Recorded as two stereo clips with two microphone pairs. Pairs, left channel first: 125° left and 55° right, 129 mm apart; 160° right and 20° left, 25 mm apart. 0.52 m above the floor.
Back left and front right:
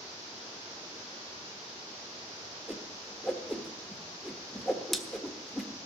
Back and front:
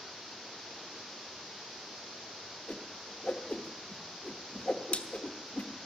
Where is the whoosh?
150° right, 1.2 m.